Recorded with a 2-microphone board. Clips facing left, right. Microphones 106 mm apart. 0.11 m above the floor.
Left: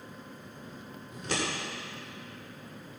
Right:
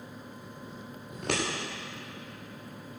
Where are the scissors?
70° right (ahead or behind), 5.5 m.